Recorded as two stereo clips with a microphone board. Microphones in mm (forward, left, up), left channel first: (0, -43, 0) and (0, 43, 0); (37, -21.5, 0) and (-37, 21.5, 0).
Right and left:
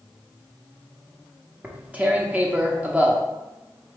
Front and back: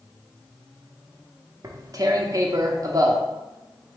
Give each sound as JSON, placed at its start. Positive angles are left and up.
{"t": 1.6, "sound": "tearing paper", "azimuth_deg": 155, "distance_m": 0.7}